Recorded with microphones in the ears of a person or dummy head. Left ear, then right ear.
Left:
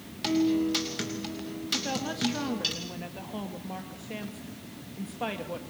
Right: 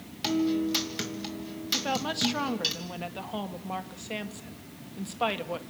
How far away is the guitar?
About 3 m.